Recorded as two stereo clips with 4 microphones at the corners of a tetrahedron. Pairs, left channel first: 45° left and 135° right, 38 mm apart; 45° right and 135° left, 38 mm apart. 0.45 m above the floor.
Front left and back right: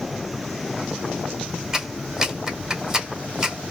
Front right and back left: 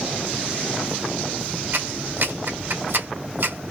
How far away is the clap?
About 1.6 m.